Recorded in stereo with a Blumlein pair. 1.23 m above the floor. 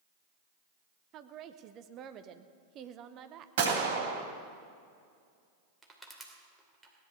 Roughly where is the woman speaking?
Ahead right.